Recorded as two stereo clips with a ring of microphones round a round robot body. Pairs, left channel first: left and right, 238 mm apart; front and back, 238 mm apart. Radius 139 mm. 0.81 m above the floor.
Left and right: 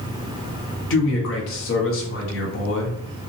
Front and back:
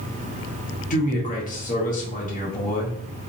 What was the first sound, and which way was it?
A man speaking, 60° left.